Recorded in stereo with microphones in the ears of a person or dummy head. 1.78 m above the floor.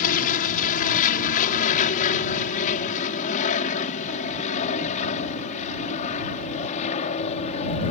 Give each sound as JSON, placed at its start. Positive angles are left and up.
{"t": 0.0, "sound": "an aircraft", "side_deg": 45}